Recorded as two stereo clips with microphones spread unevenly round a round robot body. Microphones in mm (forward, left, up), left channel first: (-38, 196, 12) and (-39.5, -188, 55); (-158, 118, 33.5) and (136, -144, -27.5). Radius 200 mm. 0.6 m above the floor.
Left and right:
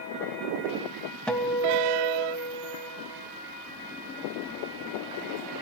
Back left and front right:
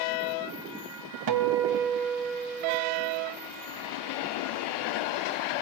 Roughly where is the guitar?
Ahead.